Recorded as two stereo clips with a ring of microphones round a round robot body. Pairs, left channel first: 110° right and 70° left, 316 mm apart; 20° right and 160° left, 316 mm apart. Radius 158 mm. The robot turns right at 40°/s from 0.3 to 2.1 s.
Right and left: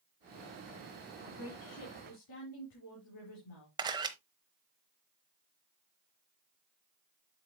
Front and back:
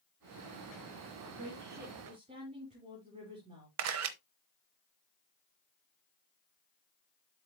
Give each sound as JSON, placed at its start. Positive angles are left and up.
{"t": 1.2, "sound": "a woman speaking", "azimuth_deg": -165, "distance_m": 4.5}
{"t": 3.8, "sound": "a camera shutter", "azimuth_deg": 140, "distance_m": 0.9}